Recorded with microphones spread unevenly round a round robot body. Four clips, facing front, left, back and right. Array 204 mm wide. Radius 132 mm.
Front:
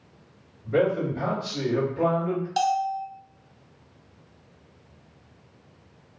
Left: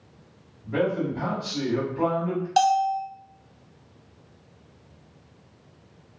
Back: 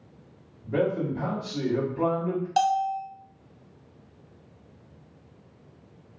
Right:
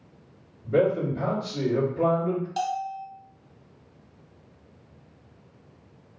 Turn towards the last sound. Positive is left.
turn(degrees=85)